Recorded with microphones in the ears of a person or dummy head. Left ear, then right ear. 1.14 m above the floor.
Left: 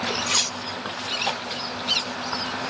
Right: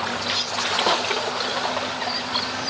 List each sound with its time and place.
0.3 s cutlery clinking: 35° left (ahead or behind), 0.8 m